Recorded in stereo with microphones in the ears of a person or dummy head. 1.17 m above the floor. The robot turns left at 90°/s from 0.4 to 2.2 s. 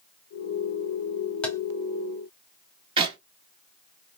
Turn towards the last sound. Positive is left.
turn(degrees=-30)  # may be behind; listen again after turning